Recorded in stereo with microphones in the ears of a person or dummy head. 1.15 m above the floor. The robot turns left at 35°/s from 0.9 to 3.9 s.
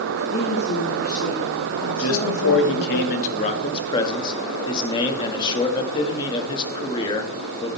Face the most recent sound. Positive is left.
turn(degrees=20)